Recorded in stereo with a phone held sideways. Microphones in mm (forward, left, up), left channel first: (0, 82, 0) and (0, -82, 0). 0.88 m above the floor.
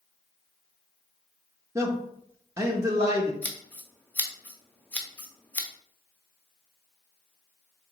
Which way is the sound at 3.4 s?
10° left (ahead or behind).